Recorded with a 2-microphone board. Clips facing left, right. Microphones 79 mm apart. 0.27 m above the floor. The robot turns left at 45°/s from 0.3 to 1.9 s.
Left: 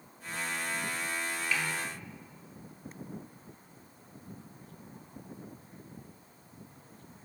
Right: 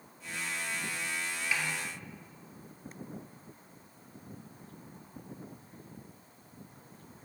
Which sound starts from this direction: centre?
A snare drum, at 1.5 s.